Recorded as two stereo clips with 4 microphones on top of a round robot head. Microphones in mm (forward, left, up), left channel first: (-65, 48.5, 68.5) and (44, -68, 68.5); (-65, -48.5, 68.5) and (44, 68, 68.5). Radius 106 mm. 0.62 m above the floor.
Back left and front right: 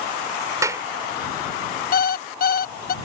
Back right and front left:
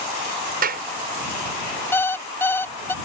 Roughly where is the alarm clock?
Behind left.